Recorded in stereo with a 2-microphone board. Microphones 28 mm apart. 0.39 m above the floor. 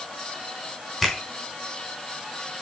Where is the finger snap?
Centre (ahead or behind), 3 m.